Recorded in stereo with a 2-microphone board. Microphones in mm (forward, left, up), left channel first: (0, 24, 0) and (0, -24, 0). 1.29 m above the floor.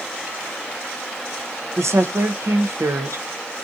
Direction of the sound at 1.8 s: 75° right (ahead or behind).